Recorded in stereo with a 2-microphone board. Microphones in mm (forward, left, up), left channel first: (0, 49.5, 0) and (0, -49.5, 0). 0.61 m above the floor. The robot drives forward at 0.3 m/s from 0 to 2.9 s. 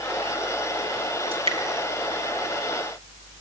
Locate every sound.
1.3 s dripping: 75° right (ahead or behind), 3.5 m; by 1.6 s 70° right (ahead or behind), 3.5 m